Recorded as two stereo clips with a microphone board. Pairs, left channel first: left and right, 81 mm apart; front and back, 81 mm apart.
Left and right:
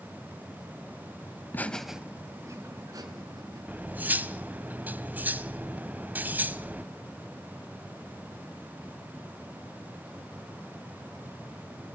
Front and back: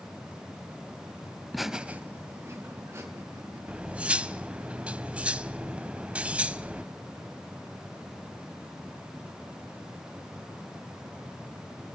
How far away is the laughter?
About 1.0 m.